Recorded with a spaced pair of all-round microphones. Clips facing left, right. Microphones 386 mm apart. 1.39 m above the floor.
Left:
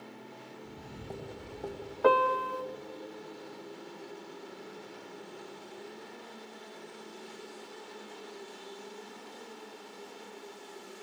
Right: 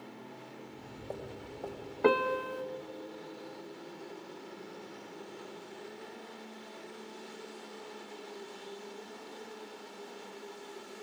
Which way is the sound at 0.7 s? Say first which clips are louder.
Even; 40° left (ahead or behind).